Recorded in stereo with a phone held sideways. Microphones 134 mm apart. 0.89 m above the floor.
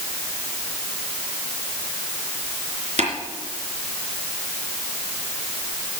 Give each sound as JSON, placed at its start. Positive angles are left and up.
{"t": 3.0, "sound": "tapping", "side_deg": -60, "distance_m": 3.0}